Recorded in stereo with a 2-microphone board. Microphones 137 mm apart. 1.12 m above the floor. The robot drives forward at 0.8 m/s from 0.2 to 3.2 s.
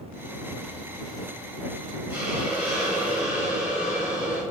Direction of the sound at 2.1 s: 15° right (ahead or behind).